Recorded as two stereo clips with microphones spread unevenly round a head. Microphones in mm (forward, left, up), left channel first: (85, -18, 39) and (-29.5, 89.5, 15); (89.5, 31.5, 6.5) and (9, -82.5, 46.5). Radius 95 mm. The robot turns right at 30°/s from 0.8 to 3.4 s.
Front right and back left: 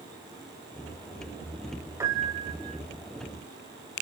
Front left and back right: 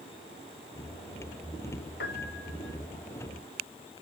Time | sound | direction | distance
2.0 | a piano | 65° left | 1.5 m